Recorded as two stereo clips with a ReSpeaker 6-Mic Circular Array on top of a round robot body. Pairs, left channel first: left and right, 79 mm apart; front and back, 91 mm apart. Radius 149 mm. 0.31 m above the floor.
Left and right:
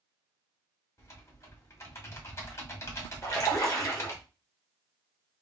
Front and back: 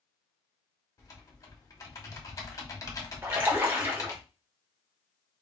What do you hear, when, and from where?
1.0 s typing on a keyboard: 45° left, 1.4 m
3.2 s a splash: 120° left, 1.3 m